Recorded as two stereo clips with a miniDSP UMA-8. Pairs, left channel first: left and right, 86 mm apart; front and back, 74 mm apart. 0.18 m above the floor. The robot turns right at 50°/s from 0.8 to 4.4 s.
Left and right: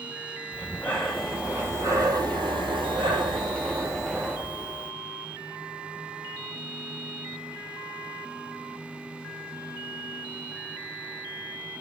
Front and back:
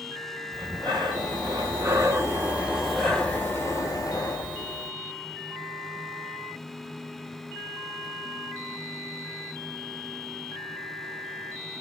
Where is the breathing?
165° left, 1.0 m; by 4.9 s 15° right, 1.0 m.